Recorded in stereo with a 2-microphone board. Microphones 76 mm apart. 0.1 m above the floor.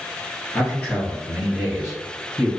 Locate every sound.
0.5 s a man speaking: 25° left (ahead or behind), 1.2 m; by 2.5 s 20° right (ahead or behind), 1.4 m